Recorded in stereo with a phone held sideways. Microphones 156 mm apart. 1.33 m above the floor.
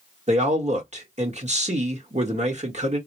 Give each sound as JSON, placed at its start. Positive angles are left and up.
{"t": 0.3, "sound": "a man speaking", "side_deg": -45, "distance_m": 1.3}